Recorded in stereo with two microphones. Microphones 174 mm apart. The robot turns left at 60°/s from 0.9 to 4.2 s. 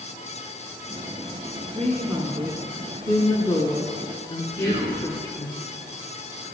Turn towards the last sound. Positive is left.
turn(degrees=-60)  # may be behind; listen again after turning